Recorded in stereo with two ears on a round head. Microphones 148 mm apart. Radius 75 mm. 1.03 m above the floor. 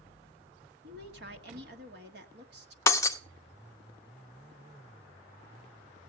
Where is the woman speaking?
70° right (ahead or behind), 1.5 m.